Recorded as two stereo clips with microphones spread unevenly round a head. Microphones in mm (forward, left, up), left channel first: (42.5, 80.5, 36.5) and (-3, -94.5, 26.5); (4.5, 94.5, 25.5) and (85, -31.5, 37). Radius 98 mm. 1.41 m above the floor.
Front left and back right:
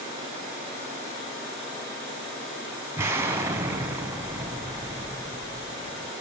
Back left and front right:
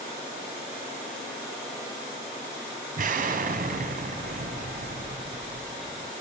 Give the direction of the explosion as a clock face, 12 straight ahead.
1 o'clock.